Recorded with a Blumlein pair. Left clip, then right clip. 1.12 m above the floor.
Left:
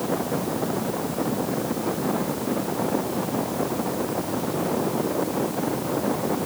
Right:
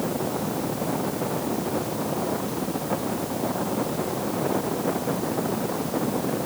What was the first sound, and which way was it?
Only background noise.